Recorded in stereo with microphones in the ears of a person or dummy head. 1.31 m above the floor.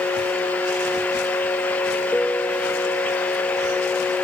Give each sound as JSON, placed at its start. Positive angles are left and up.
{"t": 2.1, "sound": "a piano", "side_deg": 5}